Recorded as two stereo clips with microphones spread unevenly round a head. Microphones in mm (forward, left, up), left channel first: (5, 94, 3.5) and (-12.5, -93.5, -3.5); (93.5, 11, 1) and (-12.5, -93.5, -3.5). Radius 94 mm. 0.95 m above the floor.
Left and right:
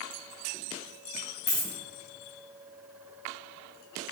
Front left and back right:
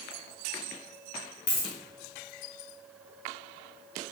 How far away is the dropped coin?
About 1.5 m.